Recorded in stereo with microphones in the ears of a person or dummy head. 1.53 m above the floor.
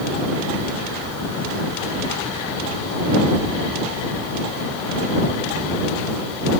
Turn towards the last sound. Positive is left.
No sound to turn to.